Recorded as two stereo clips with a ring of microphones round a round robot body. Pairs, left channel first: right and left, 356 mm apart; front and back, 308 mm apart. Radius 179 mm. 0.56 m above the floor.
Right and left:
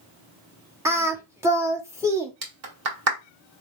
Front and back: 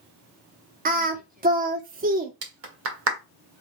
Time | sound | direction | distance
0.8 | singing | 165° left | 1.0 m
2.4 | a clap | 140° left | 1.6 m